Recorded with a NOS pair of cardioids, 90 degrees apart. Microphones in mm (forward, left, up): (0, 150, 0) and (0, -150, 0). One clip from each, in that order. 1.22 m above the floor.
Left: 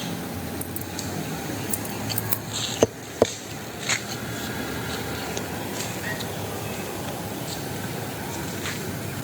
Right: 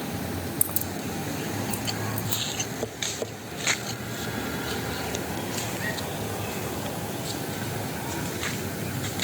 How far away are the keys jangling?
About 0.5 m.